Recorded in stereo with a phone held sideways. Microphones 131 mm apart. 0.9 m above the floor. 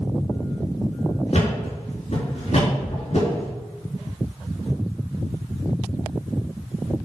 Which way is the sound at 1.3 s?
60° left (ahead or behind).